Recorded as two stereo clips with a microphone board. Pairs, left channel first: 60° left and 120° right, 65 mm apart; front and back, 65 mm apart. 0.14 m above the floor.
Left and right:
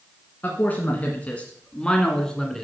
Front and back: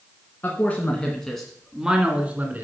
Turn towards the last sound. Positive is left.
turn(degrees=140)